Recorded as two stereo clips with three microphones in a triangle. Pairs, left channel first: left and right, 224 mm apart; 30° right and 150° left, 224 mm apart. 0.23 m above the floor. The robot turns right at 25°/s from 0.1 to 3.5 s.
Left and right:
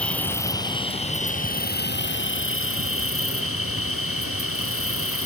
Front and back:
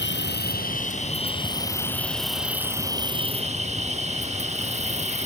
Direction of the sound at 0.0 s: 5° left.